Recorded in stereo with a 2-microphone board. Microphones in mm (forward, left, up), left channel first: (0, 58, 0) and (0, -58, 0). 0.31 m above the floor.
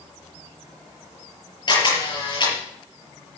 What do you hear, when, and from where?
1.7 s a camera shutter: 40° left (ahead or behind), 6.5 m